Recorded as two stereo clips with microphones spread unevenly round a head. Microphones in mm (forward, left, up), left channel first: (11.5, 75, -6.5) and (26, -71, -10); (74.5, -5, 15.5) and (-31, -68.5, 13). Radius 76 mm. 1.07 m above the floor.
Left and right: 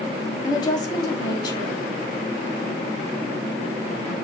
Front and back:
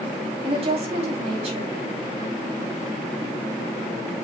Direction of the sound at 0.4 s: 160° left.